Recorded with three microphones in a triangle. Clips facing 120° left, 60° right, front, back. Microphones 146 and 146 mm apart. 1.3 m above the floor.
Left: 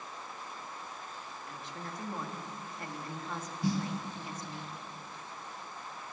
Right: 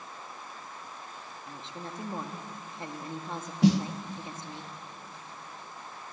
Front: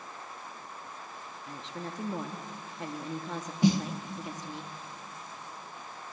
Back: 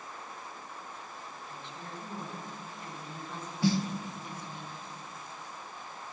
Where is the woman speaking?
5° left, 2.0 m.